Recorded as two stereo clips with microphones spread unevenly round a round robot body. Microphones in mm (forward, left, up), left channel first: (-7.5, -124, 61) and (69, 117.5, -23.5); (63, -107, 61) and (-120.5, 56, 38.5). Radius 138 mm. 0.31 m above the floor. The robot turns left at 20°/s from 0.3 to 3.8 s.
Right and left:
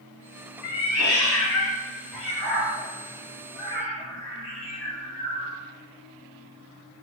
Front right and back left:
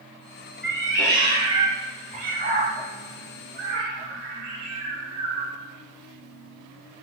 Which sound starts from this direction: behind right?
A cat meowing, at 0.6 s.